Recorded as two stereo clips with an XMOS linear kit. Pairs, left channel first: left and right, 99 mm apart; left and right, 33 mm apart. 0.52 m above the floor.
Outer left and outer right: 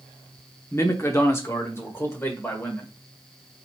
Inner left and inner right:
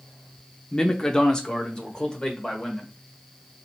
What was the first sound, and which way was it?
A man speaking, 25° left (ahead or behind).